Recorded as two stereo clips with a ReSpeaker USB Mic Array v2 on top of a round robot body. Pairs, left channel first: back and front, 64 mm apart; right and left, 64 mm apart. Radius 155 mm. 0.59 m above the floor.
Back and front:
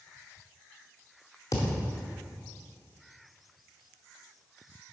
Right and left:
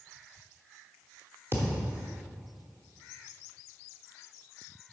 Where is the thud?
145° left, 1.1 m.